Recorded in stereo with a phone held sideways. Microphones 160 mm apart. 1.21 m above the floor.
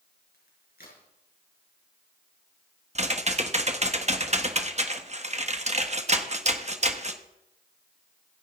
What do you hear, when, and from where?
0.3 s a crack: 70° left (ahead or behind), 5.5 m
3.0 s typing on a keyboard: 45° right (ahead or behind), 1.2 m